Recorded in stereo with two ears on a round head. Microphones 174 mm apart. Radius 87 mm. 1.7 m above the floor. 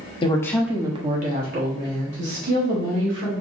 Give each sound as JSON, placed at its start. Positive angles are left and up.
{"t": 0.2, "sound": "a woman speaking", "side_deg": 25, "distance_m": 0.7}